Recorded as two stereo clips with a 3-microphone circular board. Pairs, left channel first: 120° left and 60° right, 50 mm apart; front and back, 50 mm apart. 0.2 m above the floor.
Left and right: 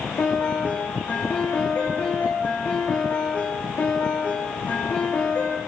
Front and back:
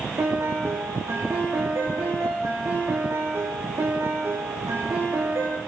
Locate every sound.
0.2 s a piano: 175° left, 7 m